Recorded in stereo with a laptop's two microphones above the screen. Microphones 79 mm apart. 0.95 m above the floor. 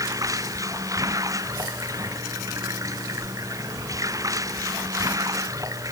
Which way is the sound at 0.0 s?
45° right (ahead or behind).